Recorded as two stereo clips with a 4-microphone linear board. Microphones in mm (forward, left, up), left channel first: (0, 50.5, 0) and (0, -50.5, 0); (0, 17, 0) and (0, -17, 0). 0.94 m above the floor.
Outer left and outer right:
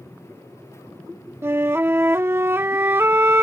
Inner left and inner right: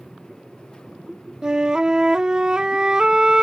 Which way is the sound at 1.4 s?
25° right (ahead or behind).